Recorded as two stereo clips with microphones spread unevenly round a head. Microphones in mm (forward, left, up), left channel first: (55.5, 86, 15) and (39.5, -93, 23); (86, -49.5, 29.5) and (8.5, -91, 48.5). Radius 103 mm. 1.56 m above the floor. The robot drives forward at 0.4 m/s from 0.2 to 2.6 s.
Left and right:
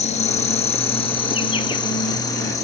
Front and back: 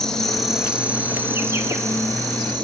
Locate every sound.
0.0 s an insect: 95° left, 0.8 m; by 2.6 s 155° left, 1.3 m